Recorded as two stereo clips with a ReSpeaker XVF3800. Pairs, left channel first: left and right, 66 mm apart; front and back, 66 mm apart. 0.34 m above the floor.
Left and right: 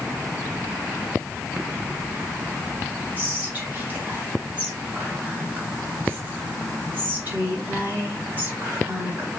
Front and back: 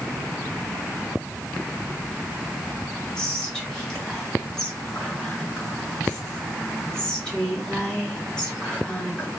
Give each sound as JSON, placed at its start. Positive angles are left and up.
{"t": 3.2, "sound": "whispering", "azimuth_deg": -65, "distance_m": 1.4}